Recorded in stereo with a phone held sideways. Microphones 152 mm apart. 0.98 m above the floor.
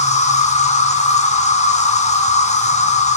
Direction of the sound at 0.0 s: 50° left (ahead or behind).